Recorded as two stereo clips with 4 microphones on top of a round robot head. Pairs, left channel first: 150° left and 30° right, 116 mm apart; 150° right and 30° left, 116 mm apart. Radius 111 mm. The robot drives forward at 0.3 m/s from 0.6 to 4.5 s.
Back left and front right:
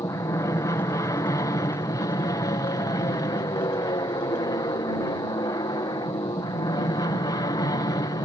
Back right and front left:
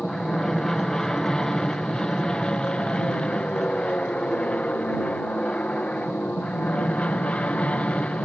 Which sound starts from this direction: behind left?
An aircraft, at 0.0 s.